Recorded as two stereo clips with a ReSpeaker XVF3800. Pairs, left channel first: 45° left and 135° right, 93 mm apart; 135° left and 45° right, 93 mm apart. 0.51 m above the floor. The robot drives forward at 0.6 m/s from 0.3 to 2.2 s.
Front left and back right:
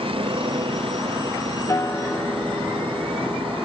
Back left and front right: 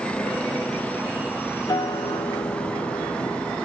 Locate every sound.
0.0 s a vehicle: 150° right
1.7 s a guitar: 95° left; by 3.6 s 120° left